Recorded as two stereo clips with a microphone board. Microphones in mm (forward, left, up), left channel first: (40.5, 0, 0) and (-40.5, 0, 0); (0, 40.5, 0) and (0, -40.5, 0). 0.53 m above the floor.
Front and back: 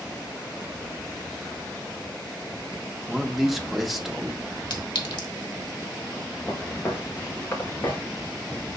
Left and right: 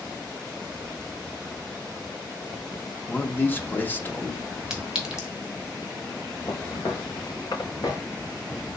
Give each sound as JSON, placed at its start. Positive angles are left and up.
{"t": 3.1, "sound": "a man speaking", "azimuth_deg": 100, "distance_m": 0.7}
{"t": 4.7, "sound": "a clink", "azimuth_deg": -10, "distance_m": 1.1}
{"t": 6.5, "sound": "footsteps", "azimuth_deg": 60, "distance_m": 2.0}